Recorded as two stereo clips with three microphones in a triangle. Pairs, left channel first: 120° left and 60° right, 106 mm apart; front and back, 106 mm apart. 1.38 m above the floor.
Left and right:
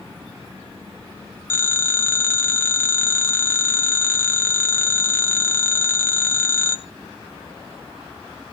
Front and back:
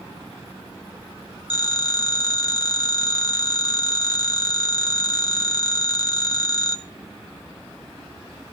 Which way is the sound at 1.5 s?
50° left.